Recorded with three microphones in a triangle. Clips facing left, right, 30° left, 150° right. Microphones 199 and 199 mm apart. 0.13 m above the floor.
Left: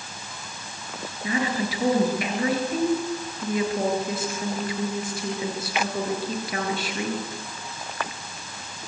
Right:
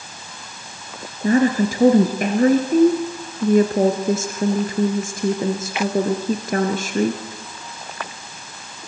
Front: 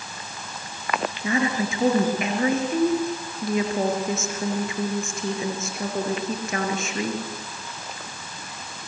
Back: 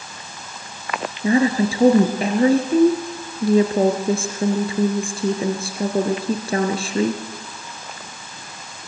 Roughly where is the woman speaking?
Right.